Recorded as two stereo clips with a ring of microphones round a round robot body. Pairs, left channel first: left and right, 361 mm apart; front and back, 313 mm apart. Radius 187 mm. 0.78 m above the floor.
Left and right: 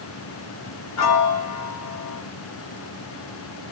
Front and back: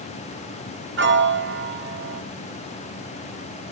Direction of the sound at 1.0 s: 130° left.